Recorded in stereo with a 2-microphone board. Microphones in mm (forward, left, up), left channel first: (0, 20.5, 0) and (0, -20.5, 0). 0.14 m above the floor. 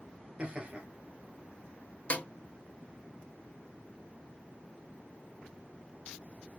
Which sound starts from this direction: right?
Laughter, at 0.4 s.